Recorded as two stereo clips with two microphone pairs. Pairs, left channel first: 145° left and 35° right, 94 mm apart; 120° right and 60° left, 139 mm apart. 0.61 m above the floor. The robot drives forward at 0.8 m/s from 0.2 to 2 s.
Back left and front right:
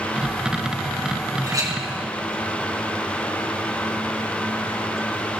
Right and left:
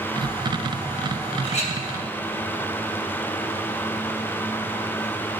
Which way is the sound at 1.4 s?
80° right.